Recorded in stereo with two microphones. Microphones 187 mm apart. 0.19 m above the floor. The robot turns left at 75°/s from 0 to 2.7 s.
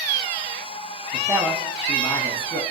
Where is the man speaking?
140° right, 1.1 m; by 2.6 s 110° left, 1.1 m.